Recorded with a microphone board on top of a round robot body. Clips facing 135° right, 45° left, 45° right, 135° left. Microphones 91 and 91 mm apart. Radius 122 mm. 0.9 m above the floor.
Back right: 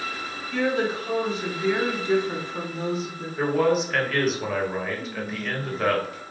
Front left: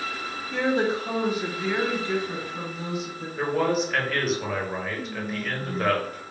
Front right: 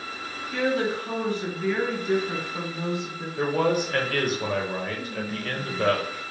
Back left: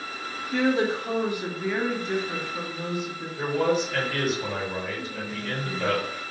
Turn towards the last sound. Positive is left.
turn(degrees=35)